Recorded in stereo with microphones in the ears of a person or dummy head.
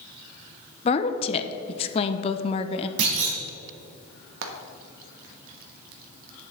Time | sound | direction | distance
0.8 | a woman speaking | 30° left (ahead or behind) | 0.6 m
3.0 | a clunk | 65° right (ahead or behind) | 1.9 m
4.4 | frying | 80° right | 1.3 m